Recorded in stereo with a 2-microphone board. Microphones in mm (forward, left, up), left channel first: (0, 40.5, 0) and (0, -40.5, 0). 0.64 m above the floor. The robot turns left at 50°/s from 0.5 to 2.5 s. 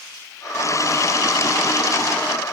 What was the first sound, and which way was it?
Only background noise.